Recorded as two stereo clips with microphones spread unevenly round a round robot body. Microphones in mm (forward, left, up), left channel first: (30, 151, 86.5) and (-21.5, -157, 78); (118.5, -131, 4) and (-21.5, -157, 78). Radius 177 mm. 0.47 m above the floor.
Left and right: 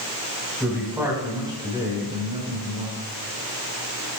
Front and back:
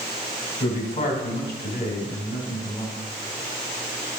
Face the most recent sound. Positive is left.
turn(degrees=-35)